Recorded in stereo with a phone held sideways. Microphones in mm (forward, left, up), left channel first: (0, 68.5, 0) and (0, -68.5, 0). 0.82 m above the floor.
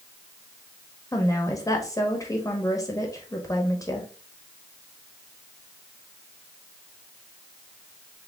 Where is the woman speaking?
25° left (ahead or behind), 1.2 m.